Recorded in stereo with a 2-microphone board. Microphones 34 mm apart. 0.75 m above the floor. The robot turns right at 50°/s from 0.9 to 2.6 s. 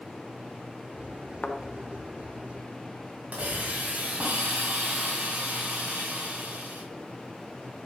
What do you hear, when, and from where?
1.4 s a thud: 45° left (ahead or behind), 0.9 m; by 1.6 s 40° left (ahead or behind), 0.9 m
3.3 s a hiss: 50° right (ahead or behind), 2.5 m